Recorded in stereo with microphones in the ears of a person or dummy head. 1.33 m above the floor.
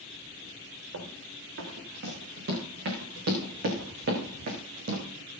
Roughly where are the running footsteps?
Right.